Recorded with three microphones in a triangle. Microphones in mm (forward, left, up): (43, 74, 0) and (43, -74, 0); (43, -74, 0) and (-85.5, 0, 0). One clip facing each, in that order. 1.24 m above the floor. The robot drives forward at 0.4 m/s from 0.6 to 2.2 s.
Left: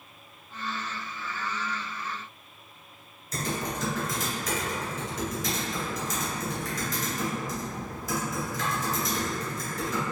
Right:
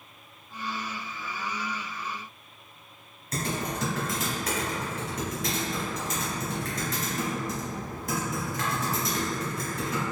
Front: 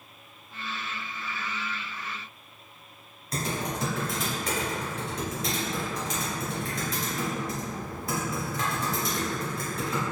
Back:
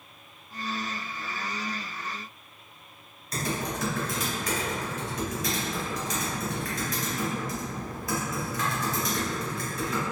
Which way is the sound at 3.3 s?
90° right.